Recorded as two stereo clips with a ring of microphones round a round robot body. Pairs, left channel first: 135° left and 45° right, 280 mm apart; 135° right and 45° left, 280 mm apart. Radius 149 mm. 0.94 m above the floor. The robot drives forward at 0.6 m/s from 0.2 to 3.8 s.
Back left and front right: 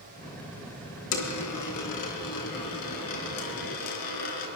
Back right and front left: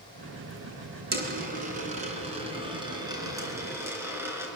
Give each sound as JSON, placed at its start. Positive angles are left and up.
{"t": 1.1, "sound": "a dropped coin", "azimuth_deg": 105, "distance_m": 3.5}